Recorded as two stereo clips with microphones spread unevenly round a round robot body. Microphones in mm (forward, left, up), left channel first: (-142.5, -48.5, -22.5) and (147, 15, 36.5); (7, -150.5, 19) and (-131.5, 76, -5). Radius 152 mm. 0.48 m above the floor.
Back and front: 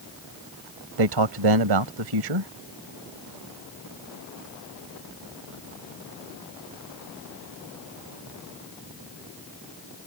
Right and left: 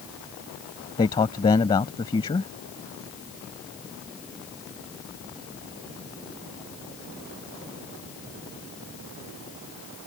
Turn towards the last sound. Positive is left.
turn(degrees=15)